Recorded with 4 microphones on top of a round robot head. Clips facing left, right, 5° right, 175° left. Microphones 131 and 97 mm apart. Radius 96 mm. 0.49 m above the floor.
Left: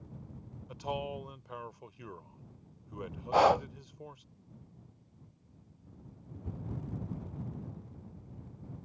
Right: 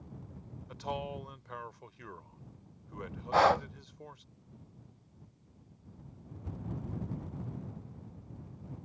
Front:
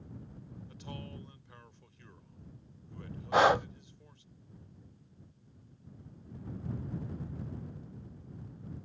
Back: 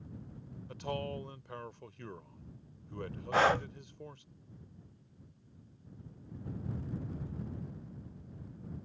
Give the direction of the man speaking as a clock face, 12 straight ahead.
7 o'clock.